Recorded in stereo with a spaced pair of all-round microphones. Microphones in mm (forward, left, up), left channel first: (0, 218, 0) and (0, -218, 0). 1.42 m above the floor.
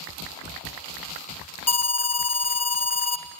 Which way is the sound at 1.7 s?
35° left (ahead or behind).